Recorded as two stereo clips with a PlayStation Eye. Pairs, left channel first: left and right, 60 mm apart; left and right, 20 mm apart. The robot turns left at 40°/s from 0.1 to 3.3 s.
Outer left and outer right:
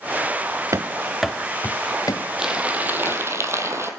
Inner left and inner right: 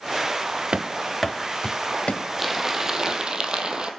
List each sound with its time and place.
0.7 s running footsteps: 60° right (ahead or behind), 0.7 m; by 2.3 s 85° left, 0.9 m
2.4 s crumpling: 10° right, 1.9 m; by 3.9 s 45° right, 1.9 m